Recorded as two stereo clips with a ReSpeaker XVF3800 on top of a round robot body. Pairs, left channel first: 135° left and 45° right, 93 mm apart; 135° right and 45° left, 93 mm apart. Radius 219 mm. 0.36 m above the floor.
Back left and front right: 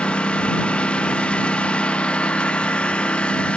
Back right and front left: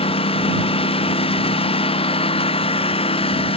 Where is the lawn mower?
145° right.